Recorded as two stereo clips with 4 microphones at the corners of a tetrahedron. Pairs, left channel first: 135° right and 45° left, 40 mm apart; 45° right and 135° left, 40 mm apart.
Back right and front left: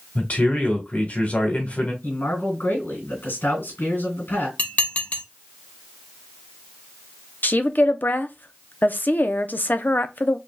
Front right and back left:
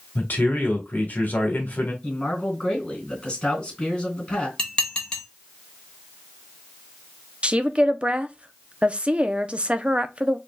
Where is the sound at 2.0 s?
110° right, 3 m.